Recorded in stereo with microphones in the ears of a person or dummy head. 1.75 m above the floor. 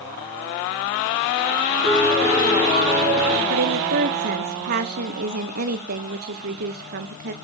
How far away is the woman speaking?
About 1.2 m.